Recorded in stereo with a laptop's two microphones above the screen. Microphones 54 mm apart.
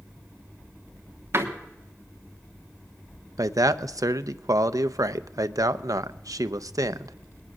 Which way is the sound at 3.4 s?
80° right.